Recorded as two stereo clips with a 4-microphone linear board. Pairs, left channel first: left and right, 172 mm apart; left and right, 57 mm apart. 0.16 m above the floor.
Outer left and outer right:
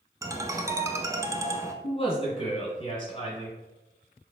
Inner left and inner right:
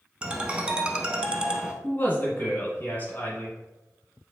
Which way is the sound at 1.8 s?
35° left (ahead or behind).